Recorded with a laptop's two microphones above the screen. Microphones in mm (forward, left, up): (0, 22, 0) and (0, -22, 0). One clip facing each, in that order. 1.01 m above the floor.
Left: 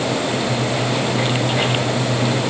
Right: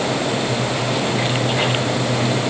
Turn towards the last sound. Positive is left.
No sound to turn to.